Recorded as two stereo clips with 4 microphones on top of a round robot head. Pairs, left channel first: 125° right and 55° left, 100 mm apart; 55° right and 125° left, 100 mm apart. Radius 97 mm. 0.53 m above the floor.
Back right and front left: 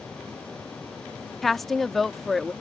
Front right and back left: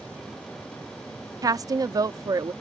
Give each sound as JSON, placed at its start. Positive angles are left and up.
{"t": 1.4, "sound": "a woman speaking", "azimuth_deg": 145}